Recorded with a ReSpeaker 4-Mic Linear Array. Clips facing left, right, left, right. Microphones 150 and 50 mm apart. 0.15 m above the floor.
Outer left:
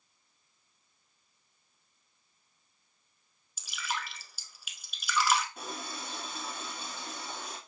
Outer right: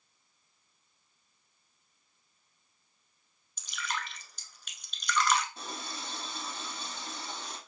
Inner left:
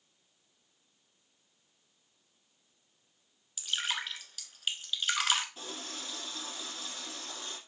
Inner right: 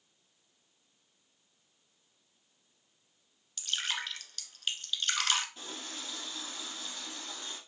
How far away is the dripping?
About 0.9 m.